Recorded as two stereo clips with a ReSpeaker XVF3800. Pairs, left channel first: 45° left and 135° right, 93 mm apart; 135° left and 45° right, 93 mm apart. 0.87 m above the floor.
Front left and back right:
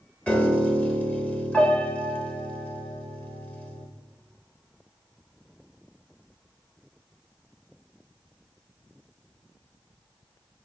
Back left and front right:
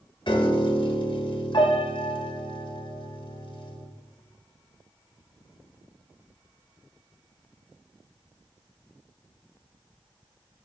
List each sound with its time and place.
0.3 s a piano: 120° left, 1.0 m